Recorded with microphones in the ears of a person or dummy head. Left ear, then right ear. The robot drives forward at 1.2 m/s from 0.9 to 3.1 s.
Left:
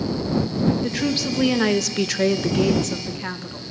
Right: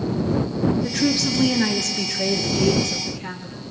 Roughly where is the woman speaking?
Left.